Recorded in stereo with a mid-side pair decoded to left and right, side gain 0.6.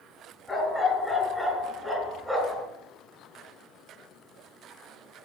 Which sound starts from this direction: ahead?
A dog barking, at 0.5 s.